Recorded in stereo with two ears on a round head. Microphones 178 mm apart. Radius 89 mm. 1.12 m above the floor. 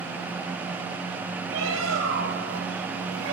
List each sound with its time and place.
1.5 s a bird: 80° right, 5.5 m